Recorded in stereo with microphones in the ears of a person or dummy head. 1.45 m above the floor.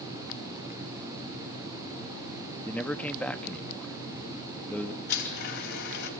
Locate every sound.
2.6 s a man speaking: 10° left (ahead or behind), 0.8 m
5.1 s a blender: 70° left (ahead or behind), 3.5 m